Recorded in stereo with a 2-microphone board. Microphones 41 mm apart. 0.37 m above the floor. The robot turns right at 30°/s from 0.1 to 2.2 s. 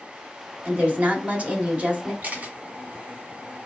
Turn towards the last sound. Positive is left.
turn(degrees=-40)  # may be behind; listen again after turning